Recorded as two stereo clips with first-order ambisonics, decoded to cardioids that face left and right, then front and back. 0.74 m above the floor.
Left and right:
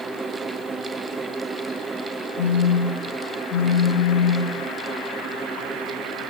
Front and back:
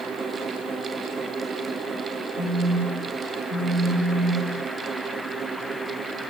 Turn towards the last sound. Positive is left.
turn(degrees=60)